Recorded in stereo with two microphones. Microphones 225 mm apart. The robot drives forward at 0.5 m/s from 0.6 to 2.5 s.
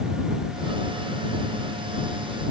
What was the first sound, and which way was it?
Only background noise.